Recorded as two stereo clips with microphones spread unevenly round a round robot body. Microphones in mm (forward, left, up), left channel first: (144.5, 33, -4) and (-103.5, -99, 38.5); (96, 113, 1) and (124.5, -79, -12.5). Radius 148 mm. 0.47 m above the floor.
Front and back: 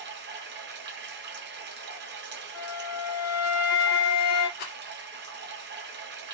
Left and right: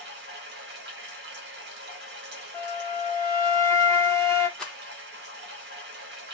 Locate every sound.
0.0 s running water: 100° right, 1.0 m
2.5 s a flute: 20° left, 1.7 m
4.6 s a rattle: 10° left, 1.7 m